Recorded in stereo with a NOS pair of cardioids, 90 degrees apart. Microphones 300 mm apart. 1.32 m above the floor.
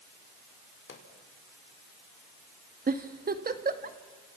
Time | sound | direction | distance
0.9 | a pop | 40° left | 5 m
2.9 | a giggle | 30° right | 1.9 m